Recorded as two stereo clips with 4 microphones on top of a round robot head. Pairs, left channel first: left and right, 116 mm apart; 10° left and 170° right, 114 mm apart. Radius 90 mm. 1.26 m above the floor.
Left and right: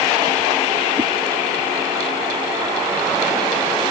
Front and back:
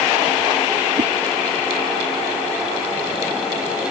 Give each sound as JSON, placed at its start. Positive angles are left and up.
{"t": 1.0, "sound": "a whoosh", "azimuth_deg": -145}